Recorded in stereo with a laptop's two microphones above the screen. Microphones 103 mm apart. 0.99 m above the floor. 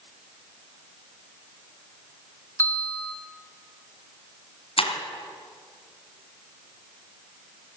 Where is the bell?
20° left (ahead or behind), 1.0 m.